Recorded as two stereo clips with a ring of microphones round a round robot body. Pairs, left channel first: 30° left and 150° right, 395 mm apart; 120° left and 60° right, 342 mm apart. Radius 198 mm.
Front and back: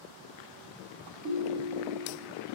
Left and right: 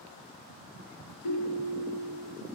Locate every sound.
1.2 s a ringtone: 150° left, 8 m